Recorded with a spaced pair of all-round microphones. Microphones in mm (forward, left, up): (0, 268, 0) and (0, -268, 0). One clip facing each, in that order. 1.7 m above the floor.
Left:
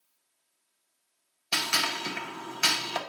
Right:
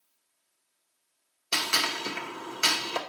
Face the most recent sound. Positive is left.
turn(degrees=15)  # may be behind; listen again after turning